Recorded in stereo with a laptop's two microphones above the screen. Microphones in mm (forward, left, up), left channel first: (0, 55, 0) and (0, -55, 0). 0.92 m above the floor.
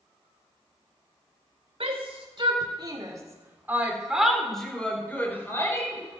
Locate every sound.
1.8 s a shout: 60° right (ahead or behind), 4 m; by 6.0 s 30° left (ahead or behind), 5 m